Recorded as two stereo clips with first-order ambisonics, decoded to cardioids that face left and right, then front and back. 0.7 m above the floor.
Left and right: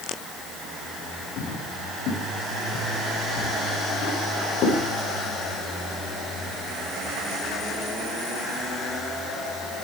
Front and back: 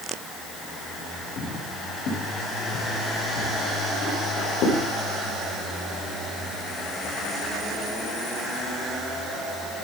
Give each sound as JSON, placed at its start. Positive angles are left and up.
{"t": 1.4, "sound": "footsteps", "azimuth_deg": 50, "distance_m": 4.5}